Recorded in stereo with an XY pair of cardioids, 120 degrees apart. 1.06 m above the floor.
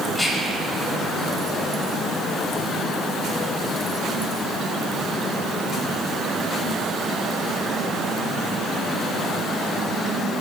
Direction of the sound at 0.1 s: 20° left.